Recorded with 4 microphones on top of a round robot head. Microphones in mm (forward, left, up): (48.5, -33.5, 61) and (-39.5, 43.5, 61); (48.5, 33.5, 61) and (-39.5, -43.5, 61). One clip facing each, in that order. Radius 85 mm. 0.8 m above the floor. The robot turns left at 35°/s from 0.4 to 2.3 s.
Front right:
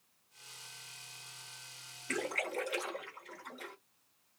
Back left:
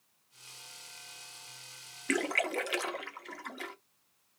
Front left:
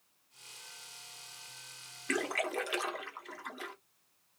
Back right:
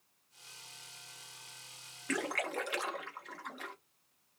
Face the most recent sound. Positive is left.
turn(degrees=125)